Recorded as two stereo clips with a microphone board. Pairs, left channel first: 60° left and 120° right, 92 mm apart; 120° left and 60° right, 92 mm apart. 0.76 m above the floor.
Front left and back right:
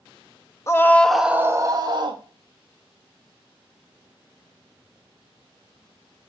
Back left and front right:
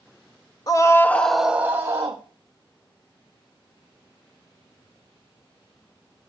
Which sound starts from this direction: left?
A scream, at 0.7 s.